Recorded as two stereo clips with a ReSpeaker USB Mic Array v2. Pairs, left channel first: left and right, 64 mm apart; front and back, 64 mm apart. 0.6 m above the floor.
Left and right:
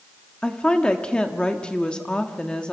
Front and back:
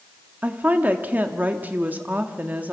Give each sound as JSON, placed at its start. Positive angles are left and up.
{"t": 0.4, "sound": "a woman speaking", "azimuth_deg": 150, "distance_m": 1.3}